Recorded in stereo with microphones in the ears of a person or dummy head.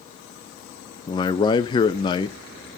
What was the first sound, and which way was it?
A man speaking, 25° left (ahead or behind).